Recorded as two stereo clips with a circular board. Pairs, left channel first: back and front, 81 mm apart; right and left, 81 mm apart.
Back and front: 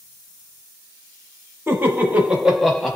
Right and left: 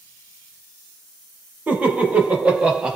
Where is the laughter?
35° left, 1.2 m; by 3.0 s 125° left, 1.0 m.